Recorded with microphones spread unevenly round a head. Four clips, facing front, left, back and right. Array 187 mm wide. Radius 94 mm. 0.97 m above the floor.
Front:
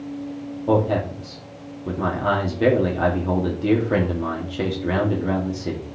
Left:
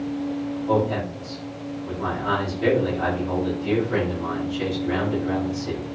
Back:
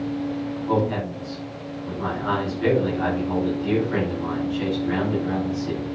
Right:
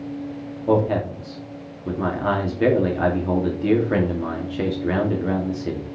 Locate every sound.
0.7 s a man speaking: 45° right, 2.5 m